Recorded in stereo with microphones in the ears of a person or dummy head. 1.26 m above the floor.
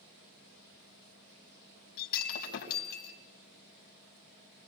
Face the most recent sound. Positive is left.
turn(degrees=55)  # may be behind; listen again after turning